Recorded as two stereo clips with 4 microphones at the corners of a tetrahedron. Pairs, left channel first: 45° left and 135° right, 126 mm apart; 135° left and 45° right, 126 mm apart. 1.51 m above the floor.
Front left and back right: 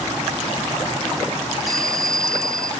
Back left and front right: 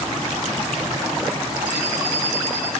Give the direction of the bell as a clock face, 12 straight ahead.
8 o'clock.